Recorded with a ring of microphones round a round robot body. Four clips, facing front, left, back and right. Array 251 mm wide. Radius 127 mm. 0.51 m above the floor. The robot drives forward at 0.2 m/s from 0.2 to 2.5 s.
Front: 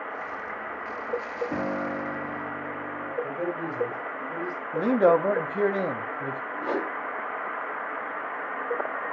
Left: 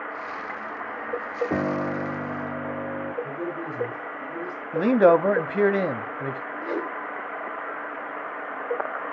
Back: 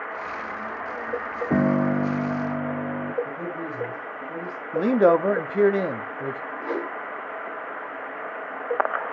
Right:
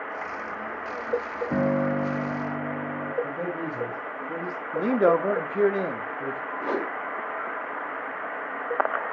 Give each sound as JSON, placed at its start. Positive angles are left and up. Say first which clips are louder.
{"t": 1.5, "sound": "a piano", "louder": "right 4 dB, back 11 dB", "azimuth_deg": 170, "distance_m": 1.0}
{"t": 3.2, "sound": "a man speaking", "louder": "right 1 dB, front 1 dB", "azimuth_deg": -70, "distance_m": 3.0}
{"t": 4.7, "sound": "a man speaking", "louder": "left 4 dB, back 2 dB", "azimuth_deg": 110, "distance_m": 0.6}
{"t": 6.6, "sound": "a whoosh", "louder": "right 1 dB, even", "azimuth_deg": -55, "distance_m": 3.5}